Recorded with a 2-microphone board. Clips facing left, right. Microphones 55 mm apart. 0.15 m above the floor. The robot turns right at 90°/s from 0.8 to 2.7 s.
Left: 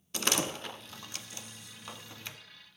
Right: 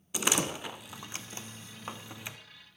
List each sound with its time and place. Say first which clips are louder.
0.1 s a door slam: right 1 dB; 10° right (ahead or behind), 0.8 m